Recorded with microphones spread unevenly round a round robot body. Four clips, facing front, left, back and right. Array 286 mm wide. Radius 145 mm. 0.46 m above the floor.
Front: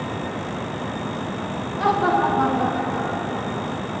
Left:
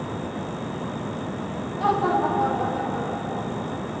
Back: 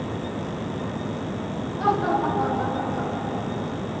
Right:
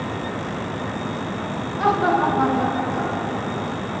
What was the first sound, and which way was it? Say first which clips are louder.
Laughter: right 3 dB, front 3 dB; 60° right.